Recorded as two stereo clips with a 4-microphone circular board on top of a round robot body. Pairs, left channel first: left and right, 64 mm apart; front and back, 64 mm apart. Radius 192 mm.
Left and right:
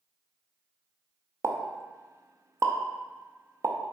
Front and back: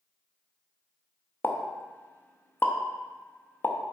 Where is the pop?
55° right, 0.8 m.